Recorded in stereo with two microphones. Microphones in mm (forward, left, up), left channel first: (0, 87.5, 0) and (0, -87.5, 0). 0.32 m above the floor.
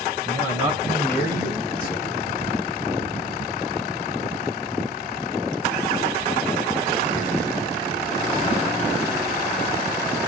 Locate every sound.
0.2 s a man speaking: 35° left (ahead or behind), 5.5 m; by 2.2 s 55° left (ahead or behind), 4 m